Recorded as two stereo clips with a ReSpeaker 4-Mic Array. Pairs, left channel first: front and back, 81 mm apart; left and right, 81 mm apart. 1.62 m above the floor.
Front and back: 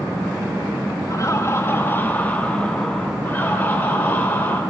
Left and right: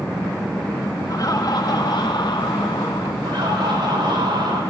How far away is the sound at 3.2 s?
About 8 m.